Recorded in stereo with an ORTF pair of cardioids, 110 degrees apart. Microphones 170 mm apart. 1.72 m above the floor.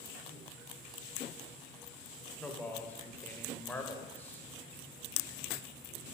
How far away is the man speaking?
About 0.5 m.